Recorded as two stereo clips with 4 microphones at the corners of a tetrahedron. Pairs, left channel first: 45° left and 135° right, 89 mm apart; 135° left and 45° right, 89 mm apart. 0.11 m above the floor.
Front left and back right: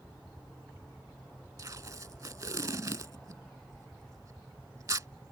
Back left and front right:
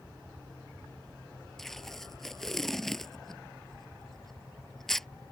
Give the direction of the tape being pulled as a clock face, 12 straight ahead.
5 o'clock.